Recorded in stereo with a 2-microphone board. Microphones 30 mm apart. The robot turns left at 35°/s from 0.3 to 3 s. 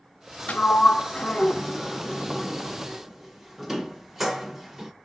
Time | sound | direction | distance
0.5 | a sliding door | 60° left (ahead or behind) | 0.7 m